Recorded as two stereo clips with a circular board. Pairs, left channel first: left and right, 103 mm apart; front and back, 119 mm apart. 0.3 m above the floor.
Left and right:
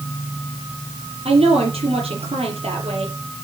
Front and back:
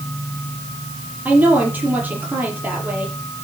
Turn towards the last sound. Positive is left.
turn(degrees=-105)